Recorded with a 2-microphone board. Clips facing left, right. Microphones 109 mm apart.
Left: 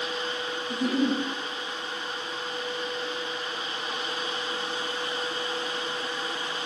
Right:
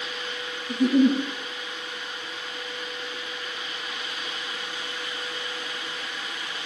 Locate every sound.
0.7 s a giggle: 60° right (ahead or behind), 1.0 m